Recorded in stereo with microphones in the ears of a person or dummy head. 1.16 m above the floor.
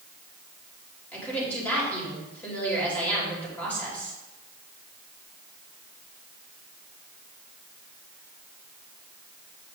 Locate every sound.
1.1 s a woman speaking: 10° left (ahead or behind), 3 m